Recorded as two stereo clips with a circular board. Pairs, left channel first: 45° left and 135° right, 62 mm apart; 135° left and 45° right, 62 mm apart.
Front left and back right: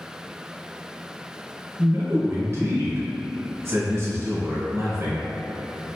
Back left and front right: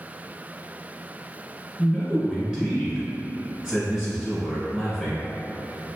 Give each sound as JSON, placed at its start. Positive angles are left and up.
{"t": 1.8, "sound": "a man speaking", "azimuth_deg": -125, "distance_m": 1.6}